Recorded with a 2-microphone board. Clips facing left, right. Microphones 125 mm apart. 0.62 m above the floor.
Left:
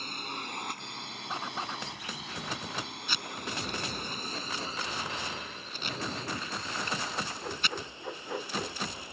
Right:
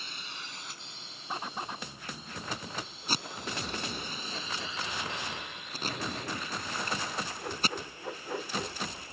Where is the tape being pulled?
40° right (ahead or behind).